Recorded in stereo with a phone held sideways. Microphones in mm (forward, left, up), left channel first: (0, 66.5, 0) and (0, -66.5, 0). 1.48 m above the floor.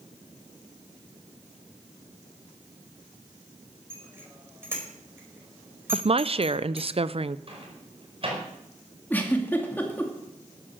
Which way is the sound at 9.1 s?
15° left (ahead or behind).